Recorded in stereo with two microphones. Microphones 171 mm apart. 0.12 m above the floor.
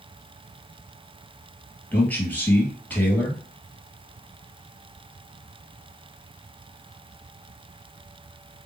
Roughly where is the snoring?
I don't hear snoring.